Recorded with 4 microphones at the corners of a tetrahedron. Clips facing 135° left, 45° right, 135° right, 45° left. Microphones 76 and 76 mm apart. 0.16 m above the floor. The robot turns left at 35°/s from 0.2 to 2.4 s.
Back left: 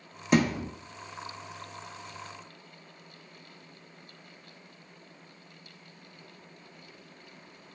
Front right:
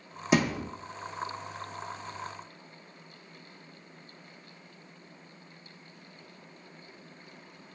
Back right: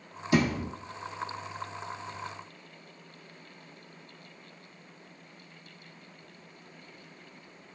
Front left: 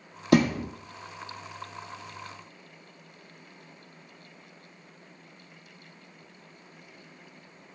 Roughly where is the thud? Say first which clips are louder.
Back left 2 dB, front left 4 dB; ahead left.